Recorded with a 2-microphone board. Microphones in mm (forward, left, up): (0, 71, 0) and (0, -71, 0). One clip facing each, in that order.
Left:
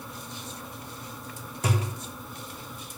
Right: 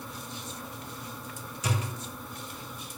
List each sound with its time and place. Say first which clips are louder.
1.6 s a thud: left 4 dB; 55° left (ahead or behind), 1.9 m